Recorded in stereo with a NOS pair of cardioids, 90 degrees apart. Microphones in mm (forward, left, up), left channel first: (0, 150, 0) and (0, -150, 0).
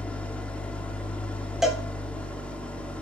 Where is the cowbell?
Straight ahead, 3.5 m.